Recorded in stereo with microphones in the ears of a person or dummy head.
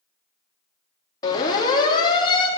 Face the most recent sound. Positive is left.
turn(degrees=25)  # may be behind; listen again after turning